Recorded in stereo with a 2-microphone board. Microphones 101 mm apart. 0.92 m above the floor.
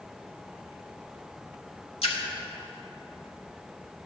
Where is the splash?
70° left (ahead or behind), 1.5 m.